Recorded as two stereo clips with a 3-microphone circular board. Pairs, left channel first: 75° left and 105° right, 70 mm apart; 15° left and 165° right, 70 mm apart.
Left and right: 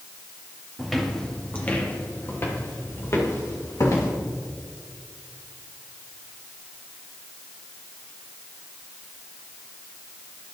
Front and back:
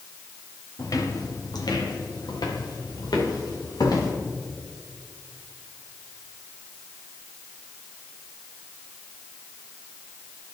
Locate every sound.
0.8 s footsteps: 15° right, 1.6 m; by 4.1 s 35° left, 4 m